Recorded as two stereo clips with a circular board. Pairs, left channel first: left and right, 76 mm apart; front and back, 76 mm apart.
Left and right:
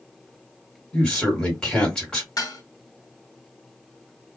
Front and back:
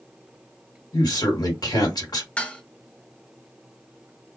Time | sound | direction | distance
0.9 | a man speaking | 10° left | 1.5 m
2.4 | dishes clattering | 70° left | 0.8 m